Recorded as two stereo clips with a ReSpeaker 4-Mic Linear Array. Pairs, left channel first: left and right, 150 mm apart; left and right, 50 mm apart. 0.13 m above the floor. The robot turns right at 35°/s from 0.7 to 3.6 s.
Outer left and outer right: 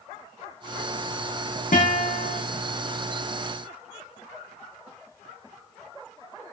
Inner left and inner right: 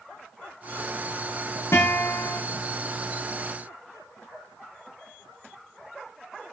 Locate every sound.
1.7 s a guitar: 65° left (ahead or behind), 4.5 m; by 2.4 s 85° left, 4.5 m